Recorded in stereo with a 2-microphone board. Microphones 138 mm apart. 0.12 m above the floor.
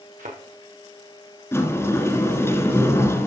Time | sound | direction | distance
0.2 | a thud | 80° right | 3.5 m
1.5 | a sliding door | 20° left (ahead or behind) | 1.5 m